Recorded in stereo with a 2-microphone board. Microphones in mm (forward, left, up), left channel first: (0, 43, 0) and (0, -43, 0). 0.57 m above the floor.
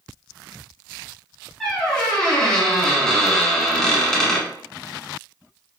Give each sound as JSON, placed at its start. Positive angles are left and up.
{"t": 1.6, "sound": "a squeak", "side_deg": 10, "distance_m": 1.1}